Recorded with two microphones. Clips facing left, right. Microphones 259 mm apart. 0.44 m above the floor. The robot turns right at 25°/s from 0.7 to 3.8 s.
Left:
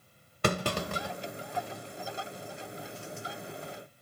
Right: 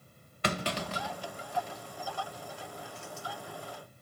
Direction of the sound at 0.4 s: 50° left (ahead or behind).